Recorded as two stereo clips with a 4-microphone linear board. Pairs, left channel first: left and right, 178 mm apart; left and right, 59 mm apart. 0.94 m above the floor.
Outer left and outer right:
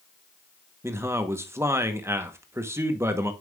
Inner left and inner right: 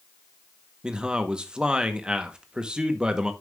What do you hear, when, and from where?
0.8 s a man speaking: 15° right (ahead or behind), 1.0 m